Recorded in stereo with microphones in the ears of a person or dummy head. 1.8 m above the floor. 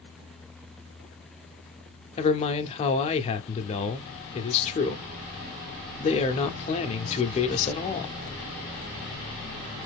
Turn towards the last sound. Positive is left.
turn(degrees=35)  # may be behind; listen again after turning